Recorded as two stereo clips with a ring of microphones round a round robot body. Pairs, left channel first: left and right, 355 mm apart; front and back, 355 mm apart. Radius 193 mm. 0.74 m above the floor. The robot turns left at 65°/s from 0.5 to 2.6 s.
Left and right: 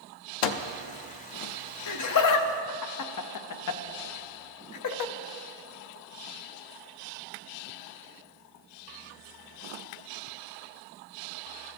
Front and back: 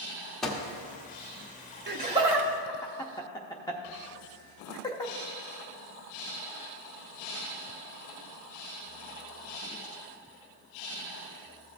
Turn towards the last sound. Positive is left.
turn(degrees=80)